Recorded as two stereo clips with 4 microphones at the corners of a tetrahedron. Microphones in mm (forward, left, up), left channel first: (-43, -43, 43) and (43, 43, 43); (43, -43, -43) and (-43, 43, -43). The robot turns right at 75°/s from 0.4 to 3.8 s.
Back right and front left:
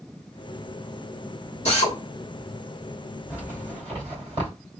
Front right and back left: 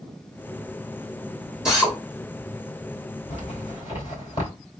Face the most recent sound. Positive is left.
turn(degrees=0)